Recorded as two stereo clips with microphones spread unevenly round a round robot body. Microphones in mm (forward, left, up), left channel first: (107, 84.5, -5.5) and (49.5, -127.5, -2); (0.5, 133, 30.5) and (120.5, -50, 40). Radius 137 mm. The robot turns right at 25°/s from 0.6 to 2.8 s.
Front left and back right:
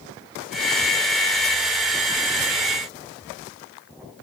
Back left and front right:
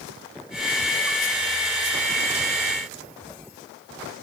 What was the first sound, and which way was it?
Only background noise.